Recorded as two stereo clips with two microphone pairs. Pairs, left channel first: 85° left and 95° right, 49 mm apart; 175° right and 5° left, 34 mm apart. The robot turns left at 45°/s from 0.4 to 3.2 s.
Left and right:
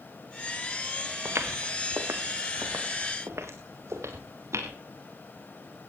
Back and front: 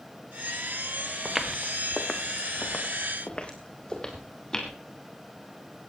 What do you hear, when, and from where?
1.2 s footsteps: 80° right, 1.9 m; by 4.7 s 105° right, 5 m